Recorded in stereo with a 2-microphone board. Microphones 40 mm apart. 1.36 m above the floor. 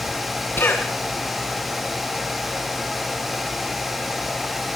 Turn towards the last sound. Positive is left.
turn(degrees=70)  # may be behind; listen again after turning